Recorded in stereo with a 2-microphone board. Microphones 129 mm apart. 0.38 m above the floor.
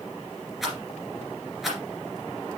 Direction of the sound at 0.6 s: Centre (ahead or behind).